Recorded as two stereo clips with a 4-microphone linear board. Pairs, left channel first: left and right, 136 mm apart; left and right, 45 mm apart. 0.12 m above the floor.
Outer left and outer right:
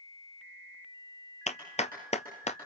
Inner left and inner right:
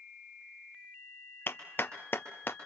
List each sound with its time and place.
1.5 s a clap: 50° left (ahead or behind), 2.0 m